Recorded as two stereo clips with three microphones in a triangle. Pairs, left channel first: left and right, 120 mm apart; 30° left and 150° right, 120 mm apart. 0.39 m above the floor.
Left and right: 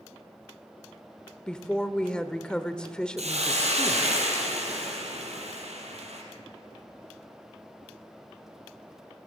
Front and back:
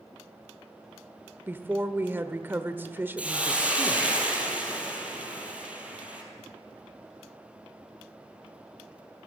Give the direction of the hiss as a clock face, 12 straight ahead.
2 o'clock.